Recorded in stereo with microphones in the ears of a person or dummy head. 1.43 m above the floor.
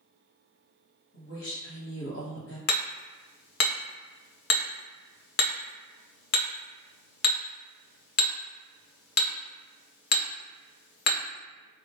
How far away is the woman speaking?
About 0.9 m.